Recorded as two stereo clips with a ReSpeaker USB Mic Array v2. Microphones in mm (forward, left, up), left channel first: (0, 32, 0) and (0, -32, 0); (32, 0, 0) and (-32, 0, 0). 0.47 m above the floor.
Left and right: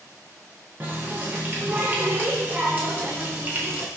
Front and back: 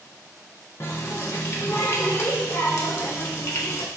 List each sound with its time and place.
0.8 s a running tap: 35° right, 0.7 m